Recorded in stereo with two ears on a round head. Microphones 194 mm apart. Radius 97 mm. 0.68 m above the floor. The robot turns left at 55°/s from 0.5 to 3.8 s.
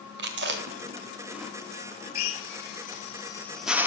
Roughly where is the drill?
Left.